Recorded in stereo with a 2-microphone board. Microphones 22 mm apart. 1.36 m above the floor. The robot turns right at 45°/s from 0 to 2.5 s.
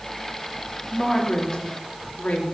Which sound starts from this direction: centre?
A woman speaking, at 0.9 s.